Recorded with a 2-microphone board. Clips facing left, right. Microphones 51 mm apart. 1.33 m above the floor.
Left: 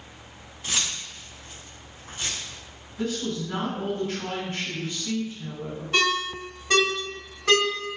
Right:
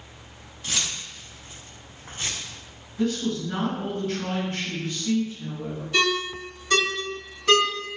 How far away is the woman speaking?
About 1.6 m.